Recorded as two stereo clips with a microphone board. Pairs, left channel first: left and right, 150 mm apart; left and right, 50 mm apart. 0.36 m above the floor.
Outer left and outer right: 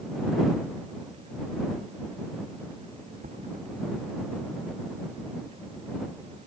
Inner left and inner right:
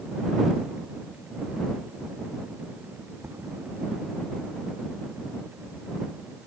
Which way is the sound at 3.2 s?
70° right (ahead or behind).